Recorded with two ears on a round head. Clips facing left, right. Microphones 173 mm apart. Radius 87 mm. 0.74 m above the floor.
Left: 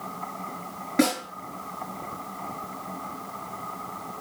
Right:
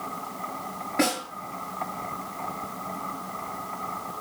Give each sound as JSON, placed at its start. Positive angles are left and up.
{"t": 1.0, "sound": "a snare drum", "side_deg": 55, "distance_m": 5.0}